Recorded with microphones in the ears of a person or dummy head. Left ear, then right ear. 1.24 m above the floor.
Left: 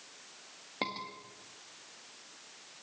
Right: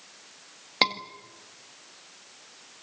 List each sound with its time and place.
0.8 s a scream: 55° right (ahead or behind), 1.8 m